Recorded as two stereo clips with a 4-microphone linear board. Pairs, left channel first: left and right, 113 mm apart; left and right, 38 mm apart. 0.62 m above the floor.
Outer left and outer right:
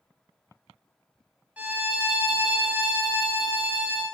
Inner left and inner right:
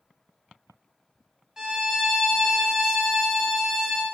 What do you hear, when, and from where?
1.6 s a violin: 15° right (ahead or behind), 0.8 m